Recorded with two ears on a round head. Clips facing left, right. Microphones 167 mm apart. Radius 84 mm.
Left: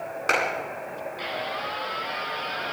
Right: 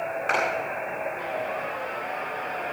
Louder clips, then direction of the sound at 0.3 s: Left 1 dB; 55° left (ahead or behind).